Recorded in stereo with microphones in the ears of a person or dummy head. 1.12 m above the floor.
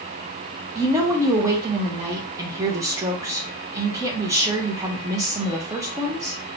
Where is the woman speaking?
15° right (ahead or behind), 0.6 m.